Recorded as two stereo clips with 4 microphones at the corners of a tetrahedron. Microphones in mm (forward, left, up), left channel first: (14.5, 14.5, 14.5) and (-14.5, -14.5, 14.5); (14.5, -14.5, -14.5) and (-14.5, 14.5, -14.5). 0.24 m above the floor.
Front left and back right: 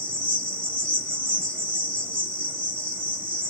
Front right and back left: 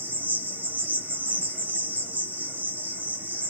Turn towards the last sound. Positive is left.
turn(degrees=115)